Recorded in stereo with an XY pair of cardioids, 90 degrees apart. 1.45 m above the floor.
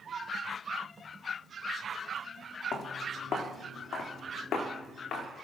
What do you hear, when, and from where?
2.7 s footsteps: 70° left, 5.5 m; by 5.3 s 75° left, 7.5 m